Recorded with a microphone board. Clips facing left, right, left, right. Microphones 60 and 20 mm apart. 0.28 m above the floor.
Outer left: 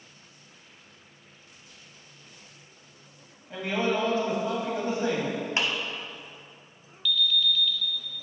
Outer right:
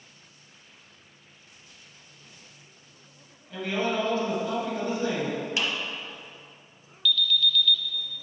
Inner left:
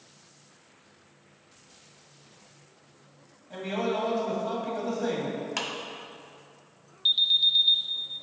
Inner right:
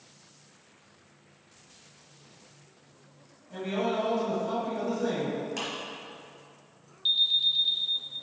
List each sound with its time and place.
3.5 s a man speaking: 25° left (ahead or behind), 1.9 m
5.6 s a clap: 35° left (ahead or behind), 1.1 m
7.0 s an alarm: 15° left (ahead or behind), 0.6 m